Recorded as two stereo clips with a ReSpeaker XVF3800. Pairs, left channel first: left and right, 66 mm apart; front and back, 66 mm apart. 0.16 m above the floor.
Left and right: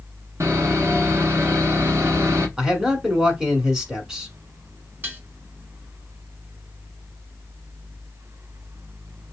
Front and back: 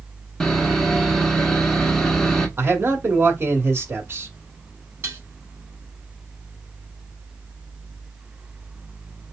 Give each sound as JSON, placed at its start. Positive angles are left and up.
{"t": 0.4, "sound": "sawing", "azimuth_deg": -80, "distance_m": 1.1}
{"t": 2.6, "sound": "a man speaking", "azimuth_deg": -160, "distance_m": 1.3}
{"t": 5.0, "sound": "dishes clattering", "azimuth_deg": -135, "distance_m": 1.4}